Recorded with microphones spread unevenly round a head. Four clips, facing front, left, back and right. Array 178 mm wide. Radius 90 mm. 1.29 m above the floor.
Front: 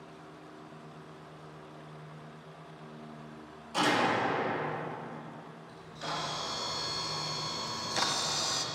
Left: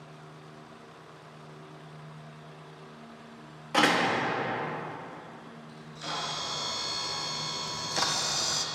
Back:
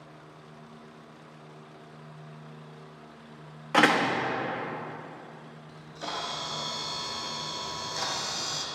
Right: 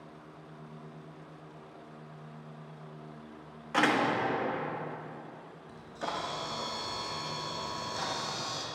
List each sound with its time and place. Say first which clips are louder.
3.7 s a door slam: left 2 dB, back 5 dB; 165° left, 1.2 m
5.7 s a camera shutter: right 2 dB, back 2 dB; 110° right, 1.2 m
7.7 s a camera shutter: left 6 dB, front 2 dB; 70° left, 0.9 m